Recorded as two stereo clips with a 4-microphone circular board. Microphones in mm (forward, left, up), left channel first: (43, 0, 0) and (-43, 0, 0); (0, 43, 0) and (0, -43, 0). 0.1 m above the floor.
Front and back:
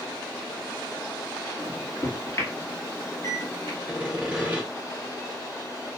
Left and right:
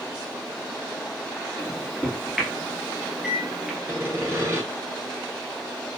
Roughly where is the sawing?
Right.